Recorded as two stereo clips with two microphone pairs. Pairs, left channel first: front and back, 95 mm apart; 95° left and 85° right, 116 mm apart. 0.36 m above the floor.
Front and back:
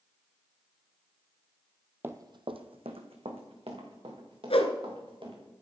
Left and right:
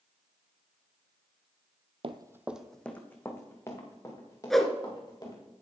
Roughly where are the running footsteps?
Behind right.